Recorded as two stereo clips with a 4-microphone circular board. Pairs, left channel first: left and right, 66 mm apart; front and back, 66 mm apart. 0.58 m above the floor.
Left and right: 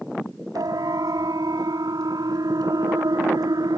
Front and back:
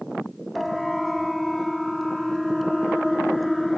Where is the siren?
90° right.